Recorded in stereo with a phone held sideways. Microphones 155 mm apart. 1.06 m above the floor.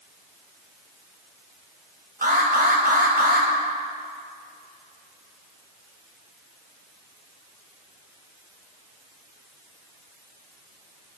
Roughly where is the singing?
I don't hear singing.